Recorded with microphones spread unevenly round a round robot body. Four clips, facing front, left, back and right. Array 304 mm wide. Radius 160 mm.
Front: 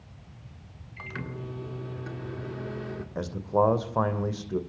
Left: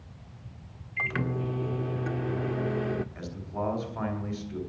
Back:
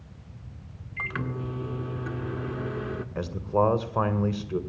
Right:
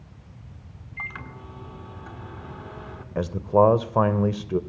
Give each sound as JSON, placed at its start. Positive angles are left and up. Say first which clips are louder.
{"t": 1.0, "sound": "a microwave", "louder": "left 8 dB, back 5 dB", "azimuth_deg": 125, "distance_m": 1.5}
{"t": 3.1, "sound": "a man speaking", "louder": "right 16 dB, even", "azimuth_deg": -85, "distance_m": 2.5}